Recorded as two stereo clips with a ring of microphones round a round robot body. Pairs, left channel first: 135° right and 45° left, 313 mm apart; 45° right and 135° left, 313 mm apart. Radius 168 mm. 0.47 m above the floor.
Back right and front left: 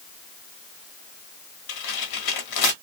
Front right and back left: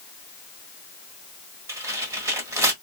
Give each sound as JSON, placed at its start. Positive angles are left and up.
{"t": 1.7, "sound": "tearing paper", "azimuth_deg": -145, "distance_m": 1.2}